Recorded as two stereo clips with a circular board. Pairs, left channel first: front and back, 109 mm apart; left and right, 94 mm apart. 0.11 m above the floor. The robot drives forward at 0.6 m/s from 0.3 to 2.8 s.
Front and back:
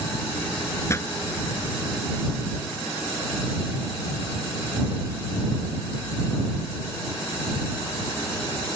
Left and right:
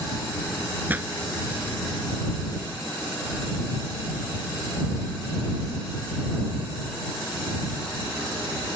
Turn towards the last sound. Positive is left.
turn(degrees=-120)